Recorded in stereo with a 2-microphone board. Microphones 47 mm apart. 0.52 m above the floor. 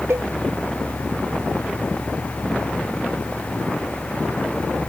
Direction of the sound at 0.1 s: 70° right (ahead or behind).